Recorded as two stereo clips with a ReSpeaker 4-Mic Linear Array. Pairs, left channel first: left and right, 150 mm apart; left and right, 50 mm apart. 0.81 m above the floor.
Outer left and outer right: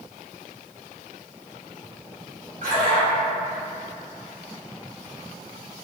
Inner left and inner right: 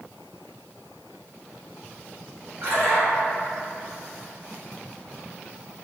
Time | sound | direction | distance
2.6 | a splash | 55° right (ahead or behind) | 1.7 m